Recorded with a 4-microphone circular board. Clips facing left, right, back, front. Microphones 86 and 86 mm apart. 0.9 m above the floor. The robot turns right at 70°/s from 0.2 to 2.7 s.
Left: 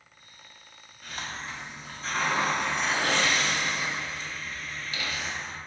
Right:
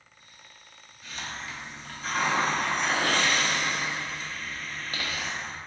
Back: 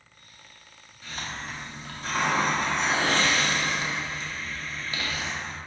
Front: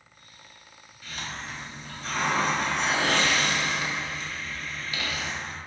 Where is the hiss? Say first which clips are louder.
Left 1 dB, back 1 dB; 115° left, 0.6 m; by 5.6 s 125° right, 0.6 m.